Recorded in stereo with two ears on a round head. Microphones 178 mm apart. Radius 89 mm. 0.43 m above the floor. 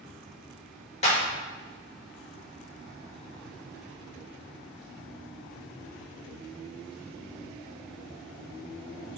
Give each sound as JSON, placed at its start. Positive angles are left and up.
{"t": 1.0, "sound": "a clap", "side_deg": 35, "distance_m": 1.1}